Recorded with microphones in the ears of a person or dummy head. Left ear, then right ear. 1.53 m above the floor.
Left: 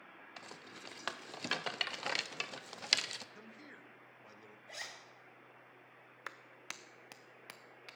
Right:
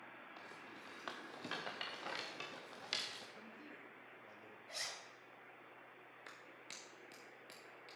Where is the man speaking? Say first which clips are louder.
Left 1 dB; 40° left (ahead or behind), 1.0 m.